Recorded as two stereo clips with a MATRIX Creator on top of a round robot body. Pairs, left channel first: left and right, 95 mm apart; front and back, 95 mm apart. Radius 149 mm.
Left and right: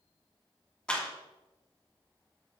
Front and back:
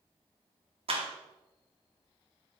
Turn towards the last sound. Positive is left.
turn(degrees=170)